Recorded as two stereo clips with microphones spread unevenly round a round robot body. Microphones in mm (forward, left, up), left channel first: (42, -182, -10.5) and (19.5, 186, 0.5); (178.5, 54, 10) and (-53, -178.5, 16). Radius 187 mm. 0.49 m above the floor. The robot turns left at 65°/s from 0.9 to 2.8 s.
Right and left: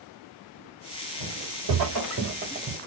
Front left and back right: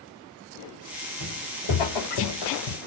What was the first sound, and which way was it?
Footsteps, 90° left.